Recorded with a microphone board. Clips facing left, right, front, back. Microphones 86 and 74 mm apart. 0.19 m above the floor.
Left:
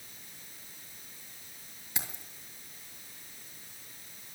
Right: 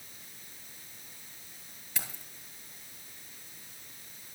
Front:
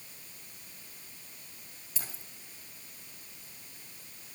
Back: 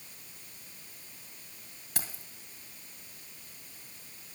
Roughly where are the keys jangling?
Behind.